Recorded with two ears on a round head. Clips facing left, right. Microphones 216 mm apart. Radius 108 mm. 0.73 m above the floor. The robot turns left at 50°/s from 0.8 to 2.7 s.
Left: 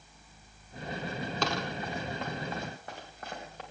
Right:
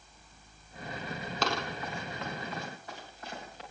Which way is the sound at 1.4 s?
5° right (ahead or behind).